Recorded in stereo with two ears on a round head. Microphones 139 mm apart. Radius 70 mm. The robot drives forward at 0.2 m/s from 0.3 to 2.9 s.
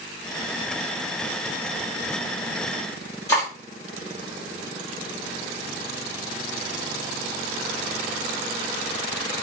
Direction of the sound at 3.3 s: 20° left (ahead or behind).